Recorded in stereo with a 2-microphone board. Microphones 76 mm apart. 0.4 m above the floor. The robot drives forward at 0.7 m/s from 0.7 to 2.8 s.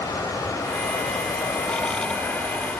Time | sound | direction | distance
0.0 | running water | 55° left (ahead or behind) | 0.7 m